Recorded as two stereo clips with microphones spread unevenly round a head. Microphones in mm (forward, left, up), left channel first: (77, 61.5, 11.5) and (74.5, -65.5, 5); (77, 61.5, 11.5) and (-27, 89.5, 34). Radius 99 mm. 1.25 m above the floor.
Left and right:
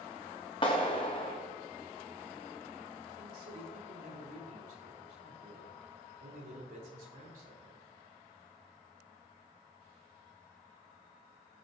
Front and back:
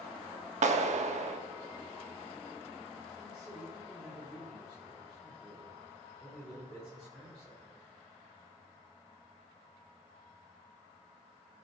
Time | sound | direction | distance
0.6 | a clap | 155° left | 1.3 m
3.2 | a man speaking | 95° right | 4.5 m